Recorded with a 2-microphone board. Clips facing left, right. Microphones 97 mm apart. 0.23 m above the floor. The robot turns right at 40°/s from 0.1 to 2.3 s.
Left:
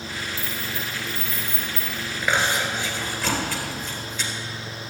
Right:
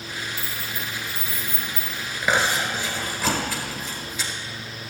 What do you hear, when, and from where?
0.4 s keys jangling: 10° left (ahead or behind), 3 m; by 2.1 s 70° left (ahead or behind), 3 m
2.2 s chewing: 10° right (ahead or behind), 1.9 m